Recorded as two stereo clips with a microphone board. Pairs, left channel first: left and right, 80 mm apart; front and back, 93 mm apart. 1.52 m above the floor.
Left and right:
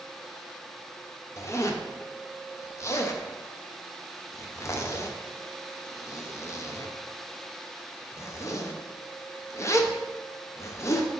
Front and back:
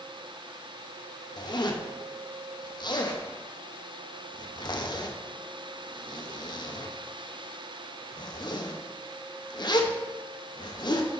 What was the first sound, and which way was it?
A zipper, 35° left.